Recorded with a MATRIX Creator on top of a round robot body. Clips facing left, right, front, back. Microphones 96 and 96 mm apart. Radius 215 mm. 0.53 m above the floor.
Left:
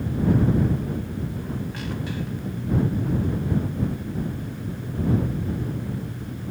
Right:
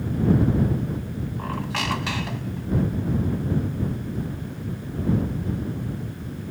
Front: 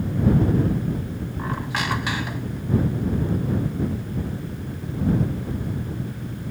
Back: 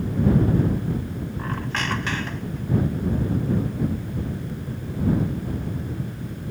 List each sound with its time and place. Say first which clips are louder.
1.4 s a squeak: right 3 dB, front 2 dB; 80° right